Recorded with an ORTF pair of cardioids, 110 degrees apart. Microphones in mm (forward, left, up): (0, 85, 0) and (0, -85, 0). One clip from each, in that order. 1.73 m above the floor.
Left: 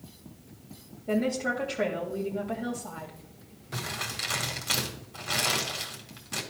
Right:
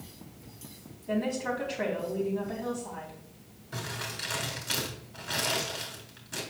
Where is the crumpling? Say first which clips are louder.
Left 3 dB; 45° left, 2 m.